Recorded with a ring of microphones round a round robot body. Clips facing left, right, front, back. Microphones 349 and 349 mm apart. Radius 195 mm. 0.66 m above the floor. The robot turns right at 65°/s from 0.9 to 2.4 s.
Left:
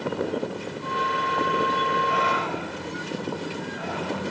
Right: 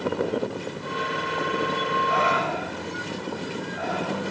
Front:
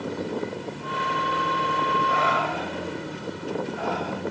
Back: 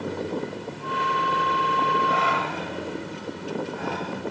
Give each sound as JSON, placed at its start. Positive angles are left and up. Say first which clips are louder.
{"t": 2.1, "sound": "breathing", "louder": "right 1 dB, front 1 dB", "azimuth_deg": -140, "distance_m": 4.0}